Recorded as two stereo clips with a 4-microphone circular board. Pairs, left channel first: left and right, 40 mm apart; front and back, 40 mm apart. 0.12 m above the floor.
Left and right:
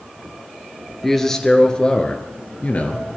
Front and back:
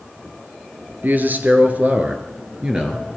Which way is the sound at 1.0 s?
170° left.